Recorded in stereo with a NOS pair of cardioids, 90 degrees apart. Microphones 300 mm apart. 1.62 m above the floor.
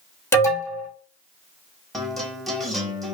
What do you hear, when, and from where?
0.3 s an alarm: 10° left, 1.2 m
1.9 s a guitar: straight ahead, 0.8 m